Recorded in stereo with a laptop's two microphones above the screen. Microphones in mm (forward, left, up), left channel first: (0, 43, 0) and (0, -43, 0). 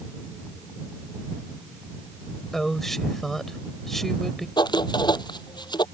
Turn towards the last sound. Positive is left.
turn(degrees=60)  # may be behind; listen again after turning